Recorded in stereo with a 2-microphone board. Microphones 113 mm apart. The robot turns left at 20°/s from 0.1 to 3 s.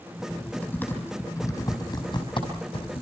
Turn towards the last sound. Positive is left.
turn(degrees=60)  # may be behind; listen again after turning